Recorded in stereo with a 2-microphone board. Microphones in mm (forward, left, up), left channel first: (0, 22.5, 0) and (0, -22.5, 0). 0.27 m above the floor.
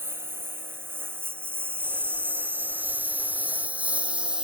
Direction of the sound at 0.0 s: 65° right (ahead or behind).